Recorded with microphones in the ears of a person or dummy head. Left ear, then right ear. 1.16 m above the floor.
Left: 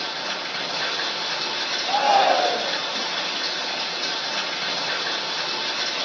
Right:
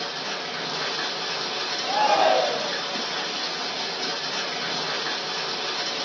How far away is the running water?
About 1.0 m.